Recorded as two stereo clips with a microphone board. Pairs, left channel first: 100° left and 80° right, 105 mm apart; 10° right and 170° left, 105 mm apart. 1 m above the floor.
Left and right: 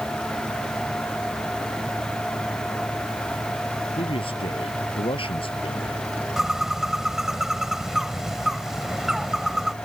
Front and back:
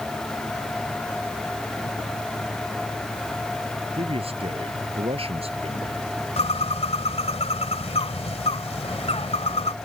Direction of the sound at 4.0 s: 135° left.